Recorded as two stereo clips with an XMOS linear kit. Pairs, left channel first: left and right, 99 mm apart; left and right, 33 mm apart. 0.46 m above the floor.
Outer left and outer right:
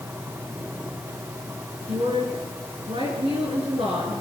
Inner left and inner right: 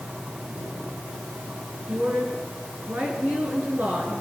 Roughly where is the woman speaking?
Right.